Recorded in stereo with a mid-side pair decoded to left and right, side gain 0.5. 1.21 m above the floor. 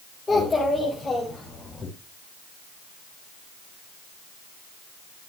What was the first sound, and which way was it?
A child speaking, 15° left.